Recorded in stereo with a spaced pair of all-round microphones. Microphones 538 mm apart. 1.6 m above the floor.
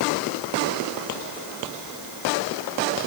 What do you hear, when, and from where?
Only background noise.